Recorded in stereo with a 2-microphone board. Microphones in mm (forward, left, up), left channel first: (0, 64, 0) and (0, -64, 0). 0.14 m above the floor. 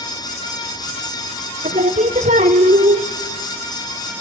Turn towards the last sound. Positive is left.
turn(degrees=-75)  # may be behind; listen again after turning